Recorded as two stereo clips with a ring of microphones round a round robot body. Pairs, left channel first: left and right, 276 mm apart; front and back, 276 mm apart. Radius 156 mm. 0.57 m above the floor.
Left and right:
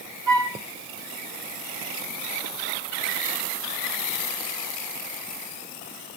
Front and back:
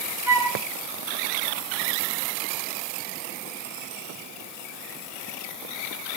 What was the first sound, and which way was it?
A flute, 100° right.